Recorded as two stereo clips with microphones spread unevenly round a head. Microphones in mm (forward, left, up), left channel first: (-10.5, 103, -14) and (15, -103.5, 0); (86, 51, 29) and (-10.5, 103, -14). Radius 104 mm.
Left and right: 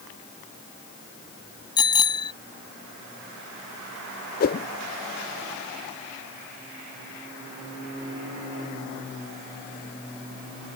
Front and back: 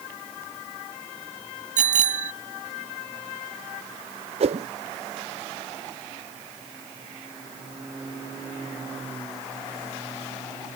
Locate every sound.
1.8 s a bicycle bell: 165° left
4.4 s a whoosh: 125° left